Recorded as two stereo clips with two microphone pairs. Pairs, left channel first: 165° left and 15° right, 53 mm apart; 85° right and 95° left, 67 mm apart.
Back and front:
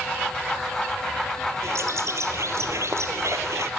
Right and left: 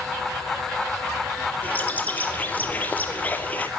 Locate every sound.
1.6 s a bird: 25° right, 1.6 m